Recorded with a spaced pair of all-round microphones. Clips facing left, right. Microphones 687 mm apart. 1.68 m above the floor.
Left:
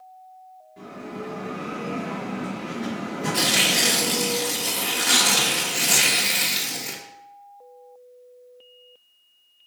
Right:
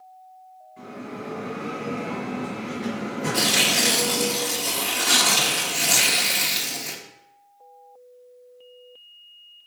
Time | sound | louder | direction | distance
0.8 | a bell | even | 60° left (ahead or behind) | 5 m
3.3 | tearing paper | right 1 dB | 5° right (ahead or behind) | 1.2 m